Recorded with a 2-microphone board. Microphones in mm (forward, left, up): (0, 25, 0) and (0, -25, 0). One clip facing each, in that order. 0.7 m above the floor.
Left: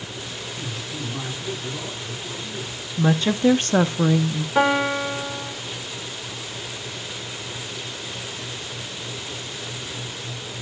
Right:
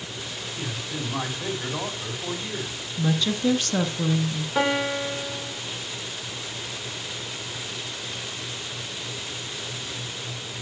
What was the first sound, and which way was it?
A man speaking, 55° right (ahead or behind).